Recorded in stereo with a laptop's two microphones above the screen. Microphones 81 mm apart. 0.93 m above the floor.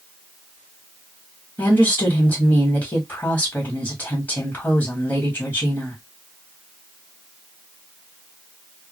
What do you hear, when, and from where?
1.6 s a woman speaking: 20° left (ahead or behind), 1.4 m